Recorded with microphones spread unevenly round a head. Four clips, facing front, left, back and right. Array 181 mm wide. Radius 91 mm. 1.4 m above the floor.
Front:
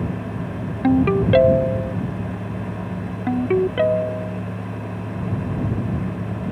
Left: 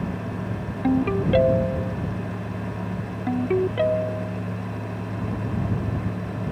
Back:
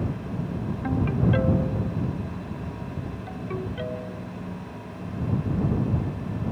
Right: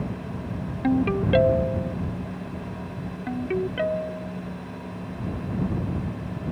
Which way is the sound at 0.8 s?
Straight ahead.